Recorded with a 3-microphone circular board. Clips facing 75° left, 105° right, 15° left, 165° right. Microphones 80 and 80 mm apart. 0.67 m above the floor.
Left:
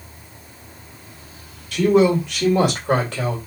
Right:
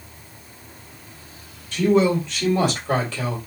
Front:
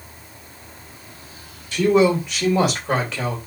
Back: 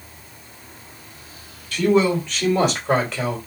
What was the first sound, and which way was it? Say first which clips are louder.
A man speaking: left 3 dB, front 1 dB; 80° left.